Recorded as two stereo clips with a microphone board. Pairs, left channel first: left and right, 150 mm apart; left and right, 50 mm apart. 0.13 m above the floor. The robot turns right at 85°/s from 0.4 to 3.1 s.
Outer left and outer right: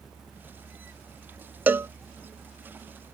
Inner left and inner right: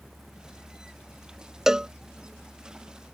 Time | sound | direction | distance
1.7 | a cowbell | 10° right (ahead or behind) | ?